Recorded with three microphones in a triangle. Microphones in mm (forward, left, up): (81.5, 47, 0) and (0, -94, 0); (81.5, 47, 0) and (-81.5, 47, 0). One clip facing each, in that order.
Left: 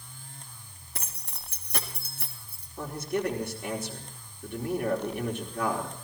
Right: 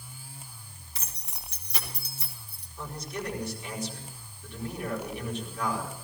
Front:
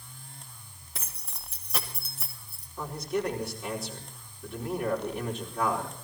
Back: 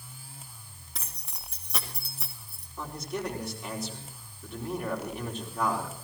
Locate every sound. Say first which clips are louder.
0.9 s keys jangling: left 3 dB, front 1 dB; 90° left, 3 m
2.8 s a man speaking: left 7 dB, front 4 dB; 90° left, 4.5 m